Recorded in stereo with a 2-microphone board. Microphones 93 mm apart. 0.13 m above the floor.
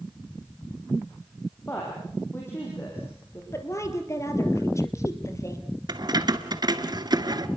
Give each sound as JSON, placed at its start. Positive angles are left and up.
{"t": 1.7, "sound": "a woman speaking", "side_deg": 25, "distance_m": 5.5}
{"t": 3.5, "sound": "a woman speaking", "side_deg": 35, "distance_m": 3.5}
{"t": 5.9, "sound": "keys jangling", "side_deg": -50, "distance_m": 1.3}